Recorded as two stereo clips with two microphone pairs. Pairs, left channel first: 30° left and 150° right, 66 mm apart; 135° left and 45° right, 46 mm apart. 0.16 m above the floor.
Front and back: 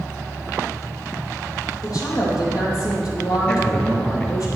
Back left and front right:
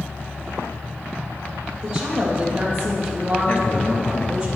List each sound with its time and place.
1.8 s a woman speaking: 25° left, 5 m
3.5 s a man speaking: 100° left, 3 m